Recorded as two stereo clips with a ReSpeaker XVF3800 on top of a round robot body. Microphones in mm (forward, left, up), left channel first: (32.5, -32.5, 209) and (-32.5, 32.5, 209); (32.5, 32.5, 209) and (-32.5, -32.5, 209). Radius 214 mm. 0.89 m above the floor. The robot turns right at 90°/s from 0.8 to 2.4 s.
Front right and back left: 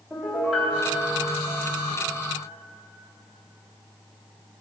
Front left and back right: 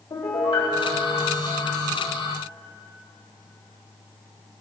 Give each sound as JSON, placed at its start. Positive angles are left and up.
{"t": 0.1, "sound": "a piano", "azimuth_deg": 45, "distance_m": 4.0}